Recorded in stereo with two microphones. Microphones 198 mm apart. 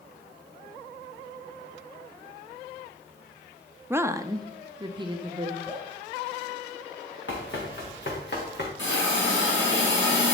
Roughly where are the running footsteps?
Left.